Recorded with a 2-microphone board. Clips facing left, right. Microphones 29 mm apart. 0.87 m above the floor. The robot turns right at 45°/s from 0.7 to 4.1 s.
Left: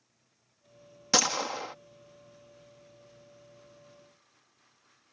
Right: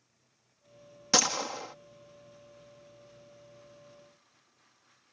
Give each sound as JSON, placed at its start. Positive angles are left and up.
{"t": 1.1, "sound": "a gunshot", "side_deg": 0}